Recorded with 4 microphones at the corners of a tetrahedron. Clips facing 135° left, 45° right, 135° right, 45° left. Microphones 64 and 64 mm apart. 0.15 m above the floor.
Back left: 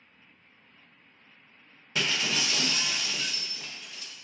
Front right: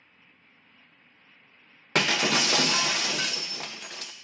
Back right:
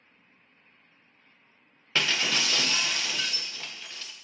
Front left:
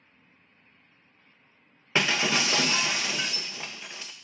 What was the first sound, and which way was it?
Breaking glass, 25° right.